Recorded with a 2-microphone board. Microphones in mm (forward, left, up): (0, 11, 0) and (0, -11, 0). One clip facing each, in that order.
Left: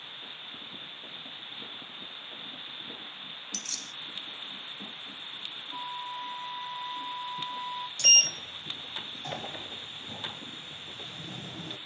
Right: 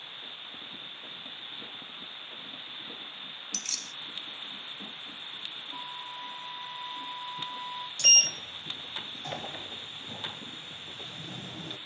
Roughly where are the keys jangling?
Centre.